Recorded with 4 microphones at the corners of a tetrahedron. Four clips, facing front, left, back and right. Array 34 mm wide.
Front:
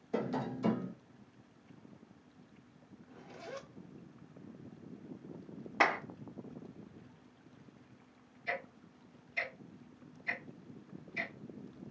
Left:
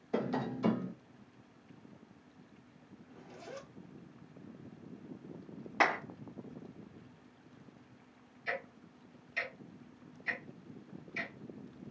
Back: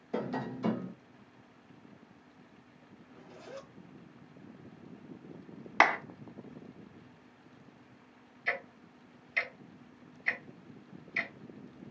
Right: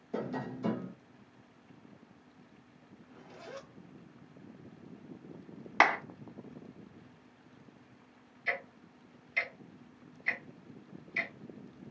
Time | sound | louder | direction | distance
0.1 | tapping | left 2 dB, even | 100° left | 0.7 m
3.0 | a zipper | right 1 dB, front 2 dB | 20° right | 1.2 m
5.8 | a clap | right 4 dB, back 5 dB | 150° right | 1.6 m
8.5 | ticking | right 4 dB, back 4 dB | 170° right | 1.3 m